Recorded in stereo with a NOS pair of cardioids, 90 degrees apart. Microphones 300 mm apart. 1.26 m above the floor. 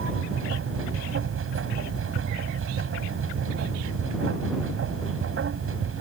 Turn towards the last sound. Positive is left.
turn(degrees=-45)